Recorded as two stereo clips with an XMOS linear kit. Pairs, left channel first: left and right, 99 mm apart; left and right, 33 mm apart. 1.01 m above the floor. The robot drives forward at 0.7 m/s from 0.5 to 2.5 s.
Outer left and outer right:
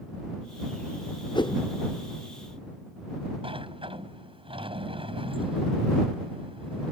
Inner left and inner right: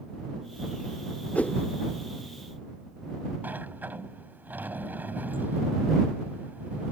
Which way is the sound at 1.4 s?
55° left (ahead or behind).